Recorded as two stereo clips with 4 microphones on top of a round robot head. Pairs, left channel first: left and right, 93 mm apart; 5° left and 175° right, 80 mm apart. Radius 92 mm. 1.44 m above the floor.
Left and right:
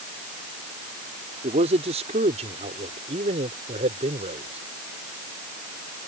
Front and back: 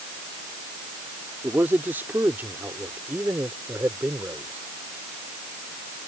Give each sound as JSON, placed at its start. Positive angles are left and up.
{"t": 1.4, "sound": "a man speaking", "azimuth_deg": -100}